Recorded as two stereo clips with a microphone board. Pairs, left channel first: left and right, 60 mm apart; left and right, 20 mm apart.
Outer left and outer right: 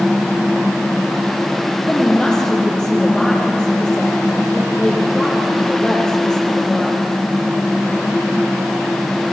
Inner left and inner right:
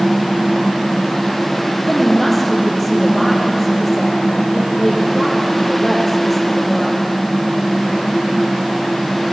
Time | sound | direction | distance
1.9 | a woman speaking | 15° left (ahead or behind) | 4 m